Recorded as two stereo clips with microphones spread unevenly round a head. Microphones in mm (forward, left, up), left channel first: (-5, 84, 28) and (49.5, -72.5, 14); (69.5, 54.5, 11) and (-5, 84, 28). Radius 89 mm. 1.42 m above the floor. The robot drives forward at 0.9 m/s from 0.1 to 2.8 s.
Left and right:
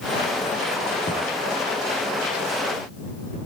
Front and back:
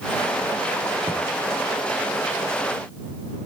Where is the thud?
160° left, 3.5 m.